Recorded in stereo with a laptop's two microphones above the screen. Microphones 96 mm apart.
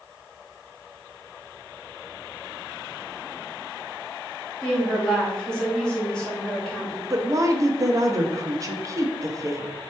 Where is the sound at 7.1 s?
35° right (ahead or behind), 0.7 m.